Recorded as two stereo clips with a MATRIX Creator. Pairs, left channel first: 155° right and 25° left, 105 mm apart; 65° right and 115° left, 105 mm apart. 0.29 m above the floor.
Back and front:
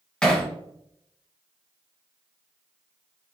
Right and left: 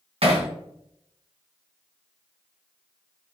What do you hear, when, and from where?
0.2 s hammering: 125° left, 1.5 m